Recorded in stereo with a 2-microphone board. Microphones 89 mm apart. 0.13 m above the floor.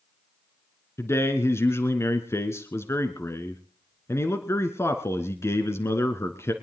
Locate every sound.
1.0 s a man speaking: 30° left (ahead or behind), 1.2 m